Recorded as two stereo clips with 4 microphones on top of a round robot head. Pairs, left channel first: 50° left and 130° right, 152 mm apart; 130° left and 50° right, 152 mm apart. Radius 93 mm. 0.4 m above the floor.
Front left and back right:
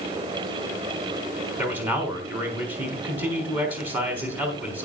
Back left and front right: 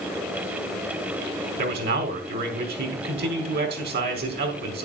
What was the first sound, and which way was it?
A man speaking, 50° right.